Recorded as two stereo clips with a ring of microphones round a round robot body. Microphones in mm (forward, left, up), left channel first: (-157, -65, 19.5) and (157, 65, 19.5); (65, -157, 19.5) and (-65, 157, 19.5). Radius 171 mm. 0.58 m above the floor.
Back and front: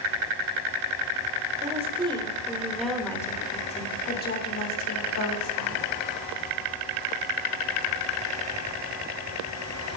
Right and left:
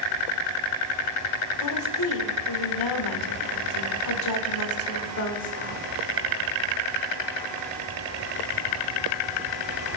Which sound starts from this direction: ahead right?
A woman speaking, at 1.6 s.